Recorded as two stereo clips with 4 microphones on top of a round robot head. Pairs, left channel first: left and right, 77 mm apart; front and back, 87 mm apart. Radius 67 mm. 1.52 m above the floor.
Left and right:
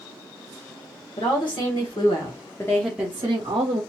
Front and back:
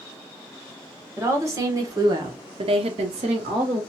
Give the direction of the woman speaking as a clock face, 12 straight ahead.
8 o'clock.